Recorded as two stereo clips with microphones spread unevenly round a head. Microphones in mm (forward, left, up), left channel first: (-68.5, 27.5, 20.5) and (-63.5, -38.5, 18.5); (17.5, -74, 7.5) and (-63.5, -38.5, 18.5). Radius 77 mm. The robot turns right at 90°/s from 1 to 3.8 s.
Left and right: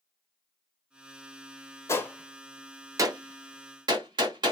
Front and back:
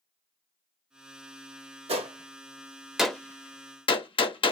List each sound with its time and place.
1.9 s a gunshot: 140° left, 1.0 m; by 4.5 s 50° right, 1.0 m